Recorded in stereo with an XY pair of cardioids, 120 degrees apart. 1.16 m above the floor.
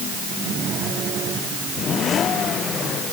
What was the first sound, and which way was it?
Only background noise.